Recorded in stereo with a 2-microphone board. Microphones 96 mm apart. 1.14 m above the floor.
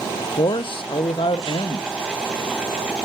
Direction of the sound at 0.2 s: 65° left (ahead or behind).